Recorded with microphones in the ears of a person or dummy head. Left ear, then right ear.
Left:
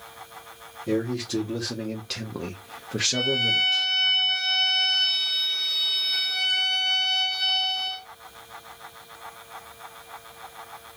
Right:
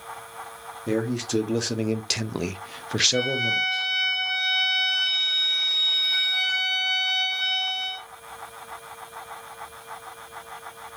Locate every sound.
0.9 s a man speaking: 45° right (ahead or behind), 1.2 m; by 3.9 s 15° right (ahead or behind), 1.0 m
3.1 s a violin: 5° right (ahead or behind), 0.6 m